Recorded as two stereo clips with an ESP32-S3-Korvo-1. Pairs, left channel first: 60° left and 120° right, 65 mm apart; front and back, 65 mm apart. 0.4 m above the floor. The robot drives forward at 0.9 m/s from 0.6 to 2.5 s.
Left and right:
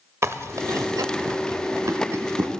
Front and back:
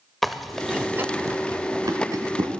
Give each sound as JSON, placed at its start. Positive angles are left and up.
{"t": 0.2, "sound": "chewing", "azimuth_deg": -85, "distance_m": 0.5}